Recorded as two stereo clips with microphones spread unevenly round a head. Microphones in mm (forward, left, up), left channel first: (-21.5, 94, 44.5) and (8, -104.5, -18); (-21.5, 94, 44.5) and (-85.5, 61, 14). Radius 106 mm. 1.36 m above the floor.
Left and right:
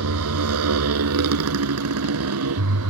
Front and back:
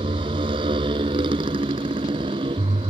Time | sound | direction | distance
0.0 | a motorcycle | 100° right | ?